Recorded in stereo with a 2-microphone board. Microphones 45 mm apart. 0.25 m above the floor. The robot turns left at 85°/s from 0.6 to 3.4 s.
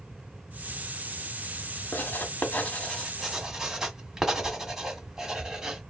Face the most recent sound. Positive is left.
turn(degrees=-10)  # may be behind; listen again after turning